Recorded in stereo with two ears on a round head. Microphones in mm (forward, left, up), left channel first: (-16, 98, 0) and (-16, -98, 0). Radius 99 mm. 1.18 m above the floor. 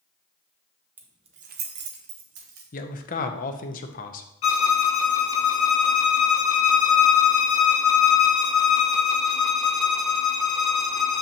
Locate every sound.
1.0 s keys jangling: 10° right (ahead or behind), 0.6 m; by 2.6 s 65° right (ahead or behind), 1.4 m
2.7 s a man speaking: 35° left (ahead or behind), 0.7 m
4.4 s a violin: 60° left (ahead or behind), 0.8 m